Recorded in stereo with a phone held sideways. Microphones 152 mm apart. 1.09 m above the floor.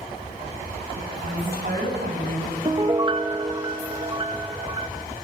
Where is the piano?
30° right (ahead or behind), 1.2 m.